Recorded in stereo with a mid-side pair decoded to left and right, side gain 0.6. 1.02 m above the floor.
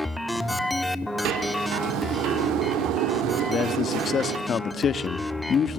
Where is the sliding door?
65° right, 1.9 m.